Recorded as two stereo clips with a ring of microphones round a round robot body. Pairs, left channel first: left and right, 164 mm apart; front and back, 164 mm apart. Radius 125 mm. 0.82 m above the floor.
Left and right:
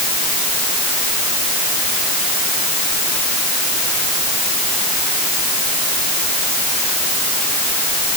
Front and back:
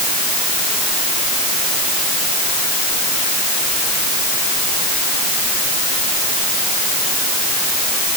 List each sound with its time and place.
Only background noise.